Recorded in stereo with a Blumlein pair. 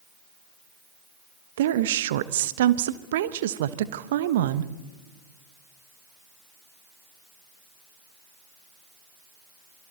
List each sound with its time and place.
1.6 s a woman speaking: 55° right, 1.1 m